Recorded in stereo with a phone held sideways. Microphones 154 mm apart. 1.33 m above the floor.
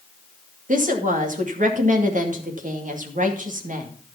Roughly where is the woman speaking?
Right.